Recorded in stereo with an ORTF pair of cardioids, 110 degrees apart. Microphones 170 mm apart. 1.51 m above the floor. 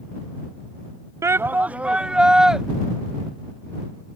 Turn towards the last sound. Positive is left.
turn(degrees=-5)